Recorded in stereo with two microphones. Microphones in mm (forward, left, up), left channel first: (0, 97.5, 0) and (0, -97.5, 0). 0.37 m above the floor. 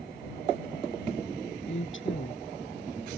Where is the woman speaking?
85° left.